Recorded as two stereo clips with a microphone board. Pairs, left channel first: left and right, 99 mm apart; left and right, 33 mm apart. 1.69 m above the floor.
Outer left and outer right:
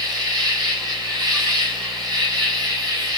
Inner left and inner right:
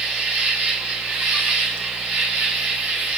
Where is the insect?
45° right (ahead or behind), 1.7 m.